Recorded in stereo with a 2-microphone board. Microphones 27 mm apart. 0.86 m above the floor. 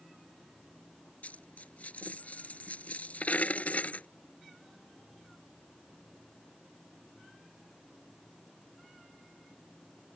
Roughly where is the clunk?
I don't hear a clunk.